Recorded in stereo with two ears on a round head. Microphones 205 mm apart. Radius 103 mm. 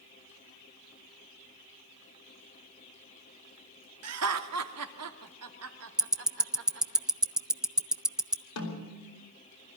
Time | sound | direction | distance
4.0 | laughter | 75° right (ahead or behind) | 2.5 m
6.0 | ticking | 5° right (ahead or behind) | 0.5 m
8.6 | a snare drum | 80° left | 4.5 m